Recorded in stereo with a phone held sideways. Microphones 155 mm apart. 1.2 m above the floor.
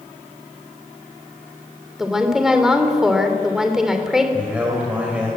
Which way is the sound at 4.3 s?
10° right (ahead or behind).